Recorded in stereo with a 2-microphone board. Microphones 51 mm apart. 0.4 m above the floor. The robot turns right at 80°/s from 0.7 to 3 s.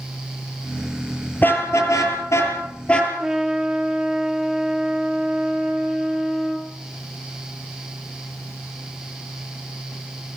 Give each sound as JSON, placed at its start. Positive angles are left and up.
{"t": 1.4, "sound": "a car horn", "side_deg": 35, "distance_m": 5.0}
{"t": 3.2, "sound": "a trumpet", "side_deg": -15, "distance_m": 4.0}